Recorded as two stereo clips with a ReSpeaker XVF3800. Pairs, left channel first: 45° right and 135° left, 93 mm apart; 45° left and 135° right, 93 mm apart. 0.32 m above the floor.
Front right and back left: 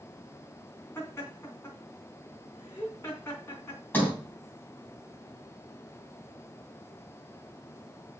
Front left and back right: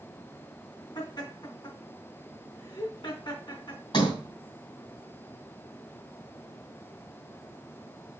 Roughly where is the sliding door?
Ahead.